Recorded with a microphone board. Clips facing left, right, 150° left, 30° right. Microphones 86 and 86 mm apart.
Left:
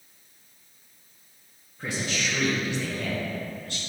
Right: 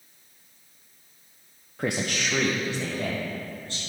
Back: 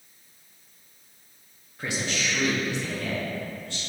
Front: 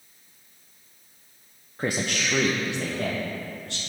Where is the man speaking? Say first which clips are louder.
Right 3 dB, front 3 dB; 85° right, 0.6 m; by 3.8 s 25° right, 2.5 m.